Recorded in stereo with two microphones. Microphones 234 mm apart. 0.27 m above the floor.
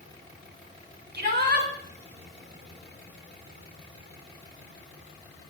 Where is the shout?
45° right (ahead or behind), 1.6 m.